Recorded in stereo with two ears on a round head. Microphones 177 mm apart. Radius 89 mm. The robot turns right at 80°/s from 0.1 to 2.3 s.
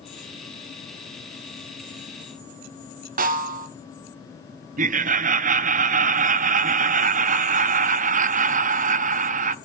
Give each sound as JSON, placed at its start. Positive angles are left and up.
{"t": 3.2, "sound": "a snare drum", "side_deg": -45, "distance_m": 1.0}
{"t": 4.8, "sound": "laughter", "side_deg": -40, "distance_m": 0.6}